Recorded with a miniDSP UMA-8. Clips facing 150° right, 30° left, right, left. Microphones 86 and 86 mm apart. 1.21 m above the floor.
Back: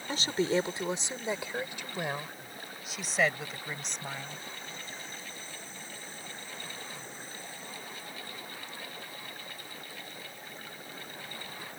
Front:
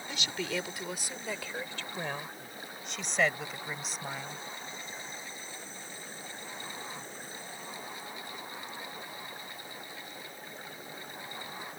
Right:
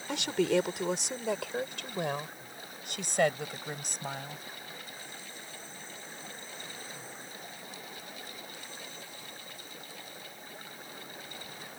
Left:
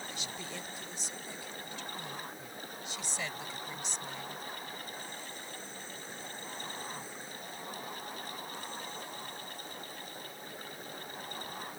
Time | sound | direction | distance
0.1 | a woman speaking | 95° right | ?